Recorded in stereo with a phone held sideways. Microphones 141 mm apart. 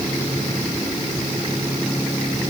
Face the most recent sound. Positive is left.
No sound to turn to.